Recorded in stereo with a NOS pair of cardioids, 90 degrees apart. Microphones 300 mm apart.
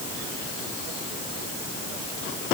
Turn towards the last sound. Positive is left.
No sound to turn to.